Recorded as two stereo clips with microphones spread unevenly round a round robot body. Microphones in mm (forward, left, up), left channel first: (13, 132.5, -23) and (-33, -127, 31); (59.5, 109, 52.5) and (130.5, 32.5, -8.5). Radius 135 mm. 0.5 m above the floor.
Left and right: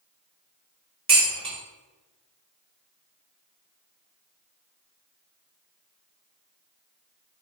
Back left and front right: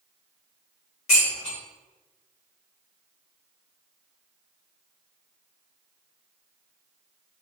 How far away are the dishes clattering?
About 1.2 m.